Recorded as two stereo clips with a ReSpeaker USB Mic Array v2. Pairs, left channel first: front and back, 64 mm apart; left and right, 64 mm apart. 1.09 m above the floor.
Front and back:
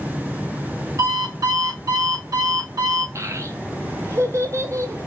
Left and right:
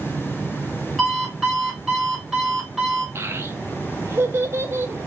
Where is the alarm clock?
Straight behind, 1.8 m.